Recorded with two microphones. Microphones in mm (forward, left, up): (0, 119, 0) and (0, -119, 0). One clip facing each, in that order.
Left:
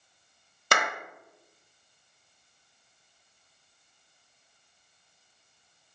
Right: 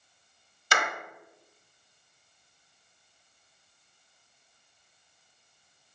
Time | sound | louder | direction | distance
0.7 | a clap | left 2 dB | 60° left (ahead or behind) | 1.8 m